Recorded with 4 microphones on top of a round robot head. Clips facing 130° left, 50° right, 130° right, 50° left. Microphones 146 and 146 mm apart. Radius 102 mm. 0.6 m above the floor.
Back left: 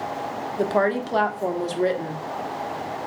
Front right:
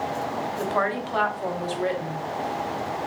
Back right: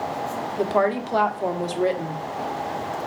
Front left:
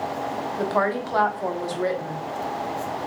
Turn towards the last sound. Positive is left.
turn(degrees=165)